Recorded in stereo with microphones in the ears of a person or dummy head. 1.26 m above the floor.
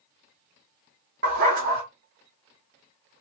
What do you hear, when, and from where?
1.2 s a dog barking: 45° right (ahead or behind), 1.2 m